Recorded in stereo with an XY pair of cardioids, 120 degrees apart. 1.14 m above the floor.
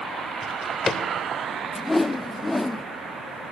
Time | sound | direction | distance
0.4 | a drawer | 20° left | 2.5 m
1.8 | a whoosh | 10° left | 0.6 m